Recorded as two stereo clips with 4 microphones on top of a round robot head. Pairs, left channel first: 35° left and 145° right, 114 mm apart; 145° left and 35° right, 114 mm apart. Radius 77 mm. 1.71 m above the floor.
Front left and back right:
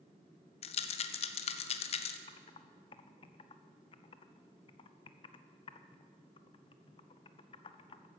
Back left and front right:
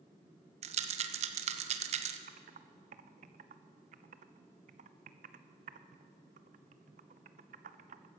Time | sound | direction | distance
0.6 | a rattle | straight ahead | 0.8 m
2.3 | typing on a keyboard | 15° right | 0.6 m